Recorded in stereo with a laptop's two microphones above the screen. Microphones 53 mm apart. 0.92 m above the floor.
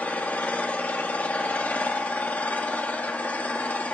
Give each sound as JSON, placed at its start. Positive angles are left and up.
{"t": 0.0, "sound": "an engine running", "side_deg": 30, "distance_m": 1.4}